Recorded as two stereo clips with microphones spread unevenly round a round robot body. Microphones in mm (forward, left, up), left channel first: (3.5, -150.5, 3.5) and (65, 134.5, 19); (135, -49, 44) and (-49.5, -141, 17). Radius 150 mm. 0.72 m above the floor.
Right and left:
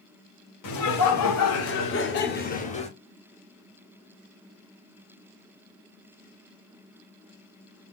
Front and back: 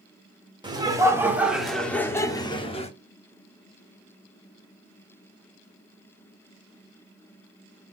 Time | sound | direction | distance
0.6 | laughter | 90° right | 2.5 m